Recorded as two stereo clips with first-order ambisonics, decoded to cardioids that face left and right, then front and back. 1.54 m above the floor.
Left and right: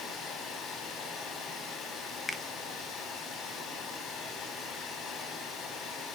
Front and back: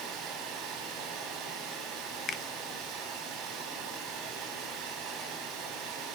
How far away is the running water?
About 6 m.